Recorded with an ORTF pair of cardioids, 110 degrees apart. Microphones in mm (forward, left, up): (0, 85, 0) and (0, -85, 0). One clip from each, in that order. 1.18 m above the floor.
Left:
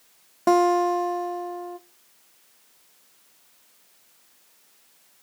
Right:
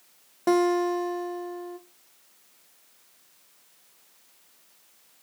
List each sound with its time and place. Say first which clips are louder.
0.5 s a guitar: left 4 dB; 15° left, 0.6 m